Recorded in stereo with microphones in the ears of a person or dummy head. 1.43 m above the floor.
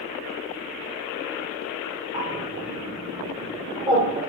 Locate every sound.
2.1 s a bird: 20° right (ahead or behind), 2.5 m